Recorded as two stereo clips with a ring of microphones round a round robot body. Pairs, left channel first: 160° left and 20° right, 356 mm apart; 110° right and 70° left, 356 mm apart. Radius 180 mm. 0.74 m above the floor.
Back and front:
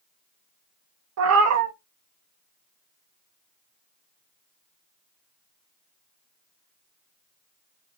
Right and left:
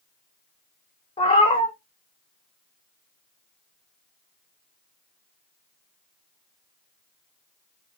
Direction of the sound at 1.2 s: 45° right.